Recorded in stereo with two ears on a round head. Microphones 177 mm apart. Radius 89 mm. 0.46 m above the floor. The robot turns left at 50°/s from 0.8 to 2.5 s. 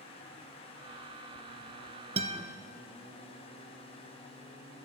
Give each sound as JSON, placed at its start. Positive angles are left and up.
{"t": 2.2, "sound": "a guitar", "side_deg": -35, "distance_m": 1.1}